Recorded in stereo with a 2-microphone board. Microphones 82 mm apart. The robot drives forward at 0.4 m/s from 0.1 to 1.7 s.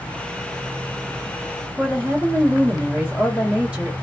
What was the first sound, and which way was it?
A woman speaking, 15° right (ahead or behind).